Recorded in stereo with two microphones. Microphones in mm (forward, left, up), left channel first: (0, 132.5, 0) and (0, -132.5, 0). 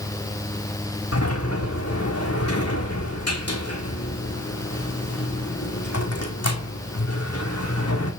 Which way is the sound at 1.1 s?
65° left (ahead or behind).